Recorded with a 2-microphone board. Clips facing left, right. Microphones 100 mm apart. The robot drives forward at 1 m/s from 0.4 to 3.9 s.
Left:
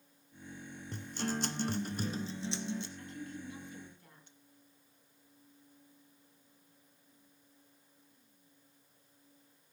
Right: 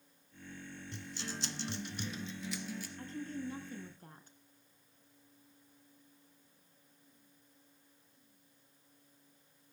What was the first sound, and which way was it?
A guitar, 45° left (ahead or behind).